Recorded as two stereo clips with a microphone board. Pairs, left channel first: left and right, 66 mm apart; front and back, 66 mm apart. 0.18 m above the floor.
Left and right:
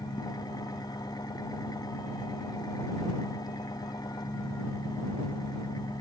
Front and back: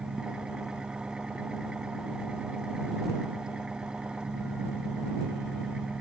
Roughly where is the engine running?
Left.